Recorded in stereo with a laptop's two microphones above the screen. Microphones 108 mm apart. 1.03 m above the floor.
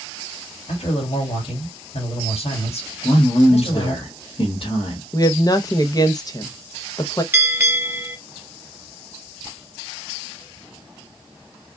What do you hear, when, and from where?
0.7 s a man speaking: 75° left (ahead or behind), 2.5 m
3.0 s a man speaking: 60° left (ahead or behind), 1.6 m
5.1 s a woman speaking: 35° left (ahead or behind), 0.8 m
7.3 s a bell: 20° right (ahead or behind), 2.5 m